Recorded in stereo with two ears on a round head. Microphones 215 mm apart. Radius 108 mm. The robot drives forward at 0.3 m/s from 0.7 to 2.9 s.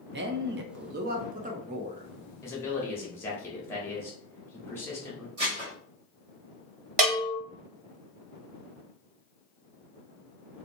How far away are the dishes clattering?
About 1.5 m.